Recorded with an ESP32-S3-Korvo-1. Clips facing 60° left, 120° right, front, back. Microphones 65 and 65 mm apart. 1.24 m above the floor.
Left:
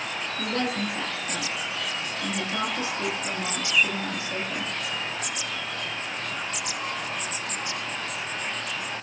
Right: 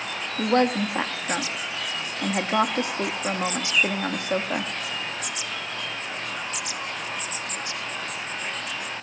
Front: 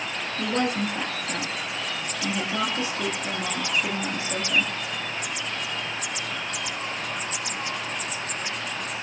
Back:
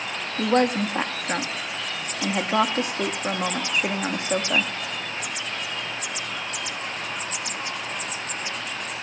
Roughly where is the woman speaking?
Behind right.